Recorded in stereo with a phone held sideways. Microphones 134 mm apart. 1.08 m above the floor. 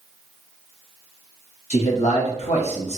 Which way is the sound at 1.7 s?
55° left (ahead or behind).